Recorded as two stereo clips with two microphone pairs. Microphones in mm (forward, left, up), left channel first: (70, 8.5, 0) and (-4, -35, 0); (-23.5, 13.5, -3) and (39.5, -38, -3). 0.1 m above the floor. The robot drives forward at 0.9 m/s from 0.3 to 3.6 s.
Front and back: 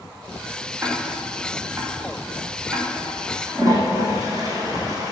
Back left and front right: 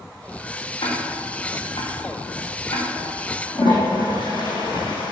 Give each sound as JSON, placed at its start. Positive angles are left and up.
{"t": 0.8, "sound": "ticking", "azimuth_deg": 145, "distance_m": 4.0}
{"t": 3.5, "sound": "a toilet flushing", "azimuth_deg": 160, "distance_m": 3.0}